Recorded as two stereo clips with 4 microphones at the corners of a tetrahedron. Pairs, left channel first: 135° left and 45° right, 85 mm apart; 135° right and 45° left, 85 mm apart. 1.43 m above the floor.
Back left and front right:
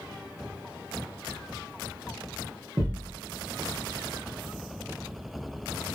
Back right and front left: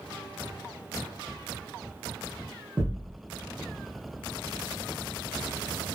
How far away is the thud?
About 0.9 m.